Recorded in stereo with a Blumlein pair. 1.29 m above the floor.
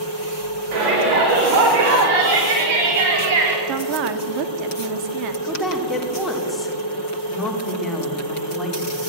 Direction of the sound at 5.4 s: 5° left.